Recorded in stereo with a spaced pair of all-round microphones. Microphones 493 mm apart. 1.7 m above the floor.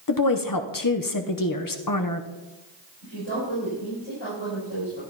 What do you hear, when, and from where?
0.1 s a woman speaking: 45° left (ahead or behind), 0.8 m
3.0 s a woman speaking: 70° left (ahead or behind), 6.5 m